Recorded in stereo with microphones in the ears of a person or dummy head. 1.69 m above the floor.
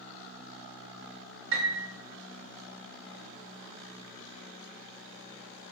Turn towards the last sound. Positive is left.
turn(degrees=-80)